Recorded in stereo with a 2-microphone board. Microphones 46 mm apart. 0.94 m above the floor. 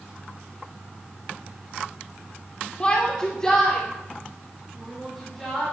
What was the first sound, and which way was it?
A shout, 25° left (ahead or behind).